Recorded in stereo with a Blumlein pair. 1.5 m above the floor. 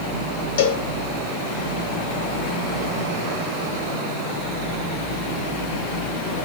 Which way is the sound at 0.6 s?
60° left.